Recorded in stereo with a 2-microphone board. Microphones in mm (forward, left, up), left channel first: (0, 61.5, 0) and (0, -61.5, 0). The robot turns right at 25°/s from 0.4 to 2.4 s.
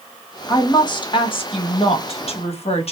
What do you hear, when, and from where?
0.5 s a woman speaking: 40° left, 0.9 m; by 2.9 s 85° left, 0.9 m